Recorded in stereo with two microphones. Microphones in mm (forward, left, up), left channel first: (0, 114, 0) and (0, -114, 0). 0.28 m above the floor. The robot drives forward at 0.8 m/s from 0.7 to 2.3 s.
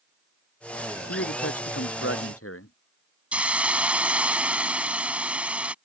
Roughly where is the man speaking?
Left.